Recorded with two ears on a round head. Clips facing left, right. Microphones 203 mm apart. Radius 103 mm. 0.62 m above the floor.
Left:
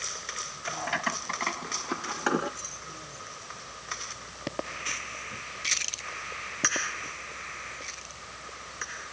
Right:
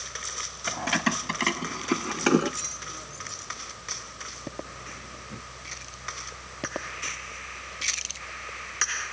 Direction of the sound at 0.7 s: 60° right (ahead or behind).